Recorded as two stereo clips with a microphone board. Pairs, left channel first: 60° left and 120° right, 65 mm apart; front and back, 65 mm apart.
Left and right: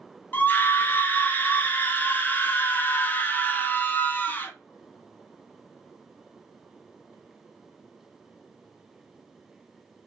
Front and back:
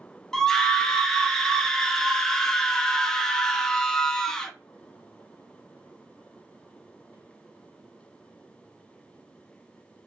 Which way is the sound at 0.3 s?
75° left.